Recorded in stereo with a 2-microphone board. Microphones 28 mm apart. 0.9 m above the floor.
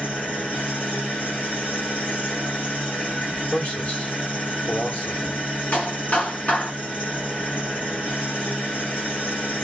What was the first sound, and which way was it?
An engine running, 65° left (ahead or behind).